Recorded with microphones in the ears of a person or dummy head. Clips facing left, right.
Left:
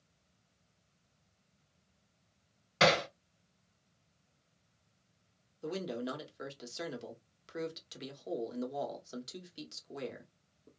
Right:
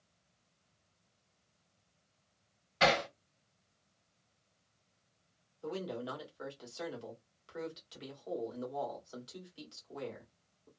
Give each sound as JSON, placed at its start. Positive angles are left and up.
{"t": 2.8, "sound": "hammering", "side_deg": 55, "distance_m": 1.4}
{"t": 5.6, "sound": "a man speaking", "side_deg": 30, "distance_m": 1.0}